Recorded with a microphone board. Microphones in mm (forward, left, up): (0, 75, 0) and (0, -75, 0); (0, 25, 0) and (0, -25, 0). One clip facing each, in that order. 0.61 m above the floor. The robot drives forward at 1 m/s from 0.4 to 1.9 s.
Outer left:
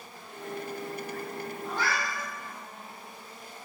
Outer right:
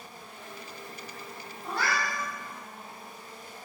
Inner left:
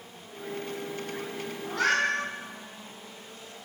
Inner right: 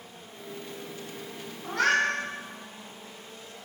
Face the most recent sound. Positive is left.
turn(degrees=-70)  # may be behind; listen again after turning